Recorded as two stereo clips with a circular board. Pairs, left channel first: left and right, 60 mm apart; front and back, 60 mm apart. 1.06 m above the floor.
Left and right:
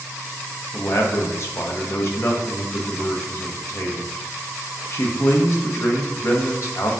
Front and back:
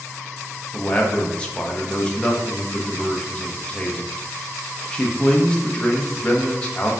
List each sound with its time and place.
0.7 s a man speaking: 70° left, 0.7 m